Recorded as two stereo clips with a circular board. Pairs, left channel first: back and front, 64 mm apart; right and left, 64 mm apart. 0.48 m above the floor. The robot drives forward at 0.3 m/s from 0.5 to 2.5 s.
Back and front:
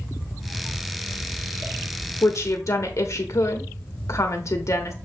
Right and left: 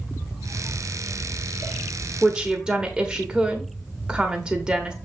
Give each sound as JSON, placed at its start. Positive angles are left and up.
{"t": 2.2, "sound": "a woman speaking", "azimuth_deg": 160, "distance_m": 1.1}